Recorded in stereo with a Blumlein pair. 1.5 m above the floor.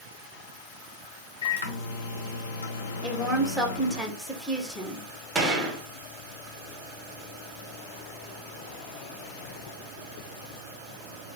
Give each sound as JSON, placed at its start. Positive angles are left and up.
{"t": 1.4, "sound": "a microwave", "azimuth_deg": 65, "distance_m": 0.6}
{"t": 3.0, "sound": "a woman speaking", "azimuth_deg": 5, "distance_m": 0.9}
{"t": 5.3, "sound": "a gunshot", "azimuth_deg": -20, "distance_m": 0.9}